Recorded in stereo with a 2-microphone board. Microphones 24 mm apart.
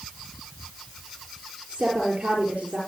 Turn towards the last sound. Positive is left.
turn(degrees=-60)  # may be behind; listen again after turning